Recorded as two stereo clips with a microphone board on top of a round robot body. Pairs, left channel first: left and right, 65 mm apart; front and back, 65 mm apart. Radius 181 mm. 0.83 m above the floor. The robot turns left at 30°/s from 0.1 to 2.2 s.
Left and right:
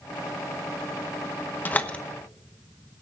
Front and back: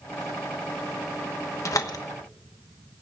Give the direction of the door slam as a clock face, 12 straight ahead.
11 o'clock.